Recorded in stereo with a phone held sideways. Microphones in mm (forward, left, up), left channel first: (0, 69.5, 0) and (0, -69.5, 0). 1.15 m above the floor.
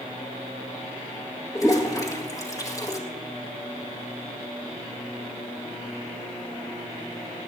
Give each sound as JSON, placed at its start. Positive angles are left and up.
{"t": 1.6, "sound": "a toilet flushing", "side_deg": 25, "distance_m": 2.0}